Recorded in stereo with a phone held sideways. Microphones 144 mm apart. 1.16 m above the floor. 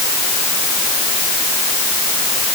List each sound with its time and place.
Only background noise.